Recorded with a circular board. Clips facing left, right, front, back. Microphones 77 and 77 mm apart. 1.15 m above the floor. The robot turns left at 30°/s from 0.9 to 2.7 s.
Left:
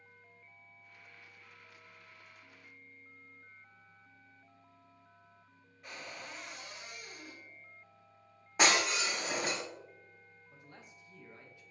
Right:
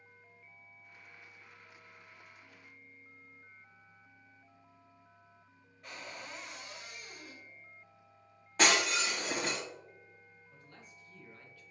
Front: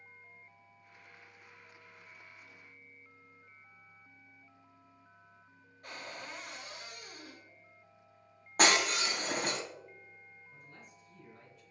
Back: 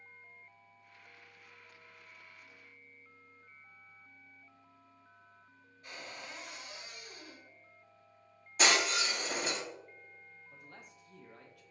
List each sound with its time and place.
5.8 s a cupboard door: straight ahead, 1.1 m
8.6 s breaking glass: 15° left, 1.3 m
10.5 s a man speaking: 160° left, 0.9 m